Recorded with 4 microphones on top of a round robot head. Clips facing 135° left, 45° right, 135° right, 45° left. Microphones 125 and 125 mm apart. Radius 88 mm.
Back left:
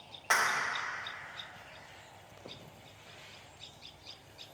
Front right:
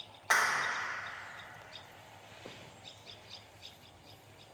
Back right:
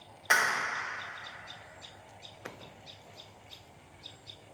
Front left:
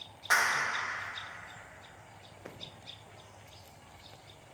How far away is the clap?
About 0.7 m.